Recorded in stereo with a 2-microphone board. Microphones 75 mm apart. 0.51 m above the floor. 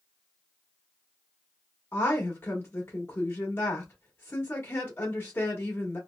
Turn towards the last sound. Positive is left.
turn(degrees=30)  # may be behind; listen again after turning